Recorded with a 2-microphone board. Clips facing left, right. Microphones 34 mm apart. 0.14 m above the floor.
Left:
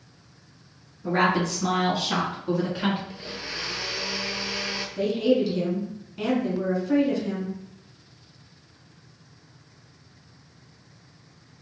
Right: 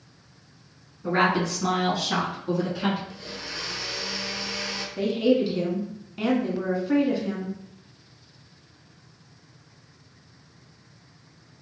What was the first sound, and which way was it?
A woman speaking, 30° right (ahead or behind).